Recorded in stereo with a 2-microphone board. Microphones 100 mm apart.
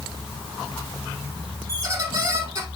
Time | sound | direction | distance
1.7 | a squeak | 35° right (ahead or behind) | 3 m